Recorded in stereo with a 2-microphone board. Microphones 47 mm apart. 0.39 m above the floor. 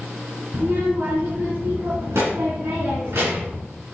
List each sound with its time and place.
0.5 s a child speaking: 55° right (ahead or behind), 2.5 m; by 3.6 s 65° right (ahead or behind), 2.5 m